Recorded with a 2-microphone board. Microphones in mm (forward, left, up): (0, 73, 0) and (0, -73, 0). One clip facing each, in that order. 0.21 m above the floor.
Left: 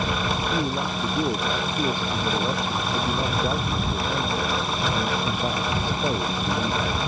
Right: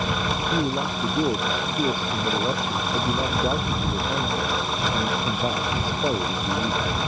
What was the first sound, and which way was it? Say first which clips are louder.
A man speaking: right 1 dB; 10° right (ahead or behind).